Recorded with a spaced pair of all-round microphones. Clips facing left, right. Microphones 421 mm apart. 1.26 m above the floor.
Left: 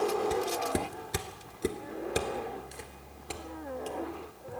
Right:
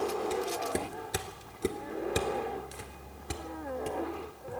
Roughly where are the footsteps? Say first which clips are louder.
Left 2 dB; left.